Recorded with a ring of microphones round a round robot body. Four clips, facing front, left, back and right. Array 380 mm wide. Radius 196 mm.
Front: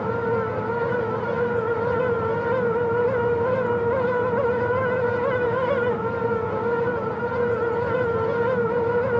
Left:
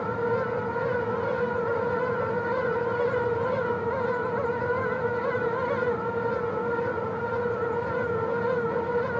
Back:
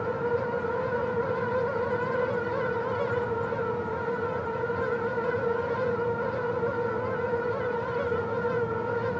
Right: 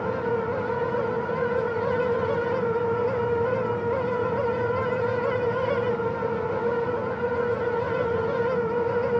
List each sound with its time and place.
Only background noise.